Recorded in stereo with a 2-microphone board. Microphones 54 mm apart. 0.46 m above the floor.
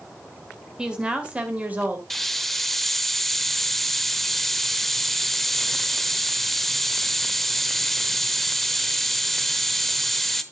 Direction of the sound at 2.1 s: 5° left (ahead or behind).